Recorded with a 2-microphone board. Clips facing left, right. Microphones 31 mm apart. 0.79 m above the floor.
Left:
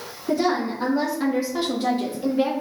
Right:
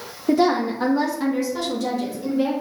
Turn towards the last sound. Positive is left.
turn(degrees=50)  # may be behind; listen again after turning